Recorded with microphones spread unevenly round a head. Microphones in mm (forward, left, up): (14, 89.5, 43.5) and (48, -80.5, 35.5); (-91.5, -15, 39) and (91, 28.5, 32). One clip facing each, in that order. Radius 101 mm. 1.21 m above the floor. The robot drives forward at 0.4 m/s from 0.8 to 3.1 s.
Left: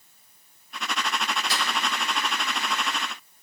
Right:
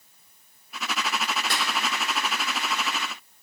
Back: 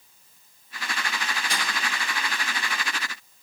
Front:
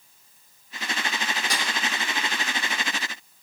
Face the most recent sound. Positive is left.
turn(degrees=-45)